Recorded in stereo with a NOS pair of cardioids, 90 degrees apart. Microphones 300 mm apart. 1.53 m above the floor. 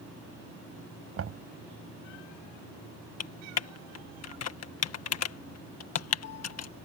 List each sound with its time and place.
1.2 s knocking: 50° right
3.2 s typing on a keyboard: 55° left